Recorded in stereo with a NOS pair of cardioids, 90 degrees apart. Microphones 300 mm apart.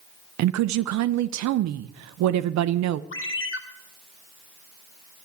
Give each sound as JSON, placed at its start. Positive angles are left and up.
{"t": 0.4, "sound": "a woman speaking", "azimuth_deg": -65, "distance_m": 0.6}
{"t": 3.1, "sound": "a ringtone", "azimuth_deg": 45, "distance_m": 2.0}